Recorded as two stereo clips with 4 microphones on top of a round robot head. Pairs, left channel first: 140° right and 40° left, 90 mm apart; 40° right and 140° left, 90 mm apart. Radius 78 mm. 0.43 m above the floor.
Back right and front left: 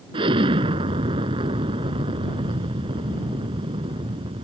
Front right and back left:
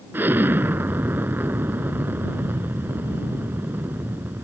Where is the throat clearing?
No throat clearing in this recording.